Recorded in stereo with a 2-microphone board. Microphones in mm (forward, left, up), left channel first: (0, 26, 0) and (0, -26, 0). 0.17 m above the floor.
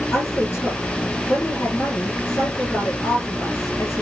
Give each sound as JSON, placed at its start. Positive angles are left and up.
{"t": 0.1, "sound": "a woman speaking", "side_deg": 55, "distance_m": 4.0}